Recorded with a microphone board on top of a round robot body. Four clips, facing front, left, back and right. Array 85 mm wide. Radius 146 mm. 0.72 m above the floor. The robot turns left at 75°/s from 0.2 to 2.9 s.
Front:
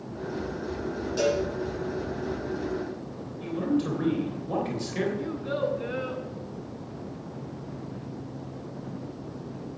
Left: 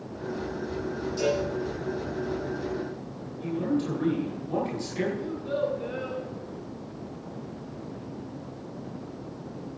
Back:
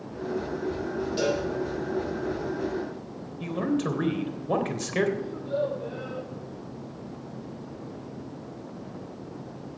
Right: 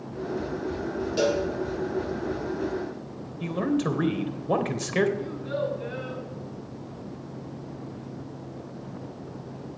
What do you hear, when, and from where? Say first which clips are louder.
1.2 s a cowbell: right 2 dB, front 3 dB; 80° right, 7.5 m; by 1.4 s 100° right, 7.5 m
3.4 s a man speaking: right 2 dB, even; 115° right, 3 m
5.2 s a child speaking: left 1 dB, even; 10° right, 7.5 m